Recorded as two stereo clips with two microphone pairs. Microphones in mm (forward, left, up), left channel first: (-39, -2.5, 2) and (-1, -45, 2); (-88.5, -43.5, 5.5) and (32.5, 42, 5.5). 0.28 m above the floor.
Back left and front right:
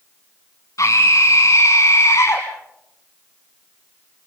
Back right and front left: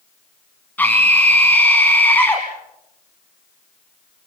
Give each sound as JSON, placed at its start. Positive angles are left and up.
{"t": 0.8, "sound": "a scream", "azimuth_deg": 140, "distance_m": 2.0}